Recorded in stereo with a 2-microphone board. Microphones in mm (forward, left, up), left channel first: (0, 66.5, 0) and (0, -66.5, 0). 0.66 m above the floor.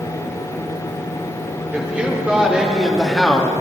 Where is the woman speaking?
10° right (ahead or behind), 2.5 m; by 3.5 s 10° left (ahead or behind), 1.0 m.